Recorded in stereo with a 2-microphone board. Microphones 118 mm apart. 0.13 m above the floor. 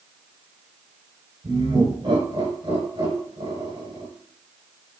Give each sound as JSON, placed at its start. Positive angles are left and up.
{"t": 1.4, "sound": "laughter", "side_deg": -45, "distance_m": 1.7}